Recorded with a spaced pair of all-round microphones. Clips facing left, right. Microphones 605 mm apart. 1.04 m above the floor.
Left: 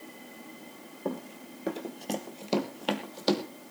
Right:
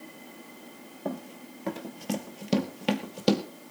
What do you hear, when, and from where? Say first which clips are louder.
1.1 s running footsteps: even; 10° right (ahead or behind), 1.6 m; by 3.4 s 55° right (ahead or behind), 2 m